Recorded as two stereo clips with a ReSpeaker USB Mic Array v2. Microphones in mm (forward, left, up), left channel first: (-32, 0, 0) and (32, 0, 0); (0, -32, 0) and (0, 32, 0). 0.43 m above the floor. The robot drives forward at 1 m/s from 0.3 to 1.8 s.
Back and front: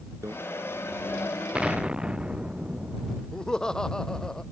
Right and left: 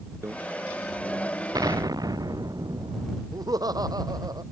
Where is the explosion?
75° left.